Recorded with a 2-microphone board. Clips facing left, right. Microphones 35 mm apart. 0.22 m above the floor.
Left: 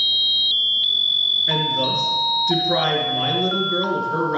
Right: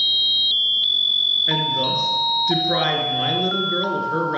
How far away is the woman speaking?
About 3 m.